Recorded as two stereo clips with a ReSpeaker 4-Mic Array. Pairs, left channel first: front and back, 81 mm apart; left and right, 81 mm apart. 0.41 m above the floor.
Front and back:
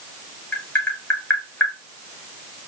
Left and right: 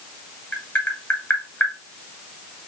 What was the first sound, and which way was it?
Tapping, 35° left.